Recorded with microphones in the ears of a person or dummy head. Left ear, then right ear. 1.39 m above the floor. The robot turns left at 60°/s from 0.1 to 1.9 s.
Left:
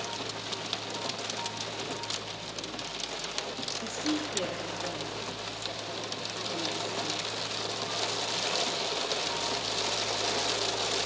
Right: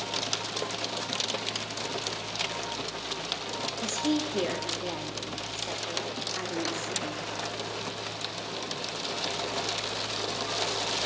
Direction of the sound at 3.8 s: 50° right (ahead or behind).